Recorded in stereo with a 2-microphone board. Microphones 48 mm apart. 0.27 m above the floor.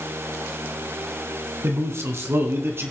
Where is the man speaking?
65° right (ahead or behind), 2 m; by 2.9 s 55° right (ahead or behind), 2.5 m.